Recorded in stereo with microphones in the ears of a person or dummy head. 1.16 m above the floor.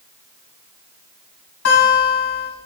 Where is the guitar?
60° left (ahead or behind), 2.5 m.